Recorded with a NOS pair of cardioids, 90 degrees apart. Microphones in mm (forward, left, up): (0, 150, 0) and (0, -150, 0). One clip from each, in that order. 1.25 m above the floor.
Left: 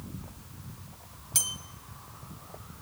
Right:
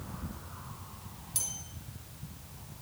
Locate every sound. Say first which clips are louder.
1.4 s a bell: left 7 dB; 65° left, 1.7 m